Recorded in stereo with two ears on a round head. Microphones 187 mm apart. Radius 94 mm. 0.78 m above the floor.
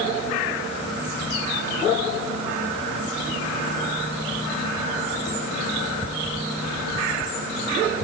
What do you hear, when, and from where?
Only background noise.